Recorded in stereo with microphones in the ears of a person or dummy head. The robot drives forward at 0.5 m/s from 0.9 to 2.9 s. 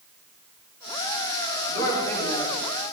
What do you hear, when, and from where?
1.7 s a woman speaking: 25° left (ahead or behind), 7.5 m; by 2.5 s 20° left (ahead or behind), 8 m